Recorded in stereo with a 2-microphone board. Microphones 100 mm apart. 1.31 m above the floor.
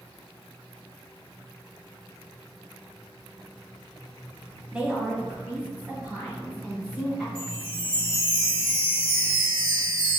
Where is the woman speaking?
10° right (ahead or behind), 0.8 m; by 7.2 s 15° right (ahead or behind), 2.5 m.